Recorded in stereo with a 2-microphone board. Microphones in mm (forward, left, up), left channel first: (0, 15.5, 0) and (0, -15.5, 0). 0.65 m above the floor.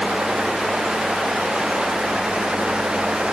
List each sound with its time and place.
Only background noise.